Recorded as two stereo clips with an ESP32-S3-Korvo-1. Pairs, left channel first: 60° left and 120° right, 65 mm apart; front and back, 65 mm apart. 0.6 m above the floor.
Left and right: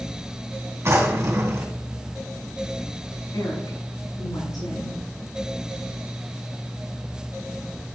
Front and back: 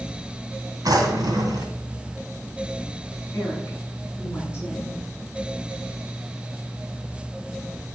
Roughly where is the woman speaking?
Ahead left.